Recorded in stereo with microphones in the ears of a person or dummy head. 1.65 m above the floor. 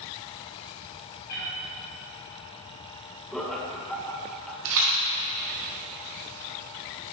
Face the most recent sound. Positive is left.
turn(degrees=-60)  # may be behind; listen again after turning